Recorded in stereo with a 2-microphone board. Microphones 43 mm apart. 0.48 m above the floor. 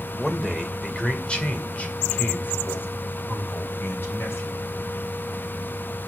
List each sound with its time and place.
0.2 s a man speaking: 10° left (ahead or behind), 2.5 m; by 4.6 s 60° left (ahead or behind), 3 m